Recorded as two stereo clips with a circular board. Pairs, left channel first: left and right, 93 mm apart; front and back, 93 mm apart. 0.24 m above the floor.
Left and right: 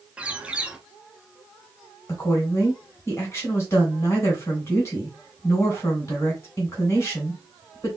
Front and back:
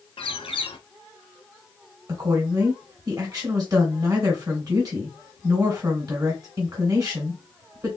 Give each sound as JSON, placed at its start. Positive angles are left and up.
{"t": 0.2, "sound": "a bird", "azimuth_deg": -15, "distance_m": 0.5}
{"t": 2.1, "sound": "a woman speaking", "azimuth_deg": 140, "distance_m": 2.0}